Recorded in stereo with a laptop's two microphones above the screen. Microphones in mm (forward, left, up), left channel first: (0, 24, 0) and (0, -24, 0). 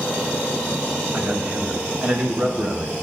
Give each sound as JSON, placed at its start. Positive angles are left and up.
{"t": 1.1, "sound": "a man speaking", "side_deg": -35, "distance_m": 1.3}